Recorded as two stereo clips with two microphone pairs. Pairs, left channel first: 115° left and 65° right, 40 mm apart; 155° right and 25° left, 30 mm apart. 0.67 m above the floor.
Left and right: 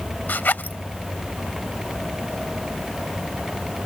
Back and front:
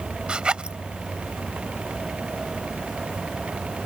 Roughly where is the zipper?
Left.